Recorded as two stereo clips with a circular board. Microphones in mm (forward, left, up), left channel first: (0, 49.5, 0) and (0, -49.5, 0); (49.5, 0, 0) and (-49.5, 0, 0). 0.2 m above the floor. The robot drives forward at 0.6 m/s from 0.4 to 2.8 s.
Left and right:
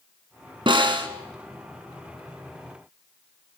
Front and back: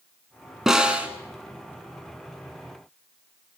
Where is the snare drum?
95° right, 1.6 m; by 1.1 s 105° right, 1.6 m.